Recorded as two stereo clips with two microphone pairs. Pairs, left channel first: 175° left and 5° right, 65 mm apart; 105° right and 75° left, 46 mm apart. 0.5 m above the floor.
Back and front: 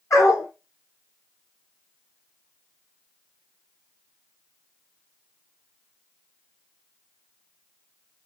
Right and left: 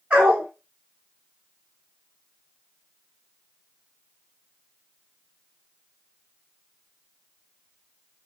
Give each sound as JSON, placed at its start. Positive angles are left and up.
{"t": 0.1, "sound": "a dog barking", "azimuth_deg": 140, "distance_m": 1.8}